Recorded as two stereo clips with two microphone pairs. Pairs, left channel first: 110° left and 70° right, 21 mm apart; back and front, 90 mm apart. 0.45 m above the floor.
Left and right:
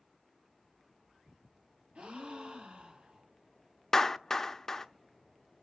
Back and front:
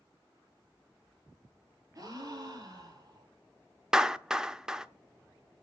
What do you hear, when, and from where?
1.9 s a gasp: 50° right, 3 m
3.9 s a clap: 70° left, 0.5 m